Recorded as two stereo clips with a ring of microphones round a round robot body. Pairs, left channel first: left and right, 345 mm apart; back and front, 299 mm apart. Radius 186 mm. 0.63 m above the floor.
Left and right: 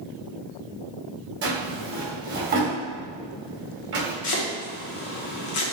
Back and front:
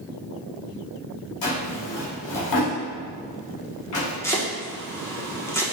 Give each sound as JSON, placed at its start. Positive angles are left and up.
{"t": 1.4, "sound": "a drawer", "azimuth_deg": -150, "distance_m": 1.5}
{"t": 4.2, "sound": "chopping", "azimuth_deg": 100, "distance_m": 1.1}